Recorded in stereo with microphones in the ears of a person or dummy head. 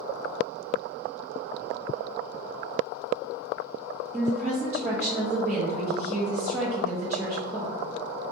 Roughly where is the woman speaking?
Centre.